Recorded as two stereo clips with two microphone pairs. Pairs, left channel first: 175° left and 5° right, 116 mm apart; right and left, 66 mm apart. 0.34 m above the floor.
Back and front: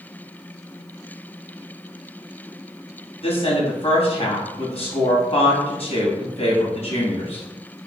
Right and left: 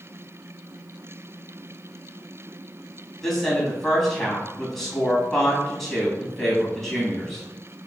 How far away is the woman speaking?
About 3 m.